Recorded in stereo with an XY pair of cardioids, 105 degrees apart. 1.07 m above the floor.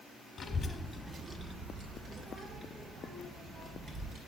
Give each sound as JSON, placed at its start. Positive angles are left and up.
{"t": 0.4, "sound": "a child speaking", "azimuth_deg": 35, "distance_m": 1.0}